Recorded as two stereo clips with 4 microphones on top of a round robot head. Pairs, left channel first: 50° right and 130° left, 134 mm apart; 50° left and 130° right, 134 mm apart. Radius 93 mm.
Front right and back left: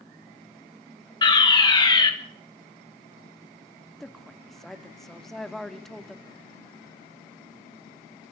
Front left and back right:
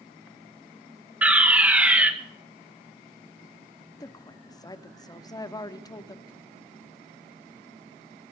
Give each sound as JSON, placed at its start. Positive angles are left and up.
{"t": 1.2, "sound": "a fire alarm", "azimuth_deg": -60, "distance_m": 2.0}
{"t": 4.0, "sound": "a woman speaking", "azimuth_deg": 35, "distance_m": 0.9}